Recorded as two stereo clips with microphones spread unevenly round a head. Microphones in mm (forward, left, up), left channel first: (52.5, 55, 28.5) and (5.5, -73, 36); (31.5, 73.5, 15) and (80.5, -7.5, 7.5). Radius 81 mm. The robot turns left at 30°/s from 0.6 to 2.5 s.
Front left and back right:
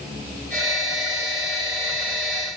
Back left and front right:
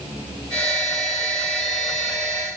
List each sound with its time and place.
Only background noise.